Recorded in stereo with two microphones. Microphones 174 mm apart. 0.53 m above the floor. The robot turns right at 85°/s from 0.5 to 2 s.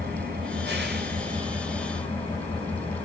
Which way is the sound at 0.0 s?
115° right.